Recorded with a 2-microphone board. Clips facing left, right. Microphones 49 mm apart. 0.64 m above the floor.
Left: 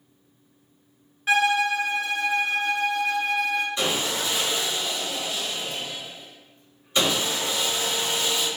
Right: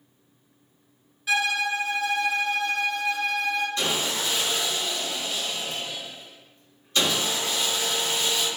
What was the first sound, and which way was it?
A violin, 40° left (ahead or behind).